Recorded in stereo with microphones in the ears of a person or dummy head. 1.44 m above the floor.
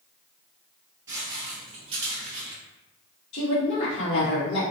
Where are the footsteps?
20° right (ahead or behind), 1.8 m; by 2.6 s 45° right (ahead or behind), 2 m.